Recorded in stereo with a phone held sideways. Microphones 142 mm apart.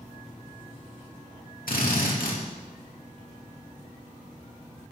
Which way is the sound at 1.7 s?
85° left.